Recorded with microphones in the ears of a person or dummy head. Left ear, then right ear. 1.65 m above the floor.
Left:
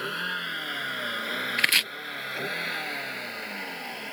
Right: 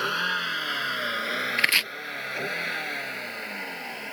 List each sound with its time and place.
0.0 s a vehicle: 30° right (ahead or behind); by 4.1 s 5° right (ahead or behind)
1.6 s chopping: 5° right (ahead or behind)